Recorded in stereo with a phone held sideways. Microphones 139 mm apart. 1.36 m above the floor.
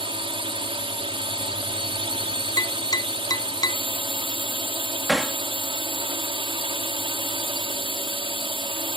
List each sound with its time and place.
0.0 s a drone: 40° right (ahead or behind)
2.6 s tapping: 25° left (ahead or behind)
5.1 s hammering: 5° right (ahead or behind)